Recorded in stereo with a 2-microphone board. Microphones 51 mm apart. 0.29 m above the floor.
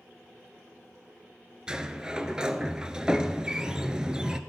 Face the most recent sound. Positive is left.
turn(degrees=-15)  # may be behind; listen again after turning